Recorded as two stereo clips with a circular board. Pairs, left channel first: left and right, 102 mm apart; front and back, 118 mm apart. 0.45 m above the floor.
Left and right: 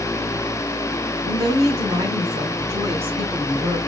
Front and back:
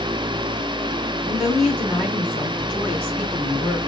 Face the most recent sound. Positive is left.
turn(degrees=-80)